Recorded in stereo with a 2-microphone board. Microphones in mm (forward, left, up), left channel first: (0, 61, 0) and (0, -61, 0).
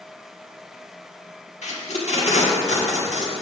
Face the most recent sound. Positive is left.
turn(degrees=70)  # may be behind; listen again after turning